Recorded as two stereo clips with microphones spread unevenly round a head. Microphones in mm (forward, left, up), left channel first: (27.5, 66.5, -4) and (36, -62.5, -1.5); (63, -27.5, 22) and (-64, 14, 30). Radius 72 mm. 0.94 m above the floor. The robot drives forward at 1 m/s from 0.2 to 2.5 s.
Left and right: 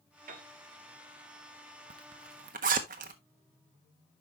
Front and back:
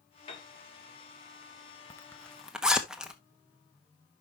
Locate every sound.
0.3 s a piano: 70° right, 3 m
1.9 s a zipper: 80° right, 1.2 m; by 3.1 s 110° right, 1.3 m